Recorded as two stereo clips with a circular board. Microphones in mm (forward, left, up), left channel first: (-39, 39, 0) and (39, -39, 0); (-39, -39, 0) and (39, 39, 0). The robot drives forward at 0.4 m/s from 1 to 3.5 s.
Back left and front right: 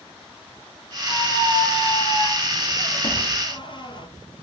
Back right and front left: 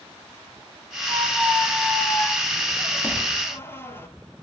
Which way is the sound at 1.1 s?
130° left.